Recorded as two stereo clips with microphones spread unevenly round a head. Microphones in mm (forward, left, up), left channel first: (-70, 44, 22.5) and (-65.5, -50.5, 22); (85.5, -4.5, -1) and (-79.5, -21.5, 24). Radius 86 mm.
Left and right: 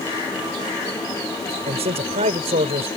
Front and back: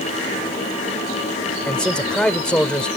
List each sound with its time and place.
1.7 s a man speaking: 80° right